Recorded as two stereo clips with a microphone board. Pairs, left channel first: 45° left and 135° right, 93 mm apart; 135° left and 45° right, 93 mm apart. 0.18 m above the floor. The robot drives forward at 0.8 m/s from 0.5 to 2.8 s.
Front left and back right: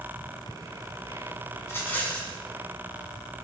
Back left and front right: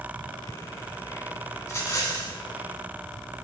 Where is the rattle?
90° left, 1.4 m; by 2.4 s 120° left, 1.5 m.